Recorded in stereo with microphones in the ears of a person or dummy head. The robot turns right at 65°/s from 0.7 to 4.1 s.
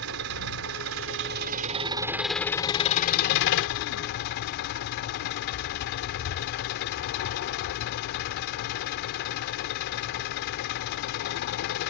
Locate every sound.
0.0 s an engine running: 105° right; by 11.9 s 115° left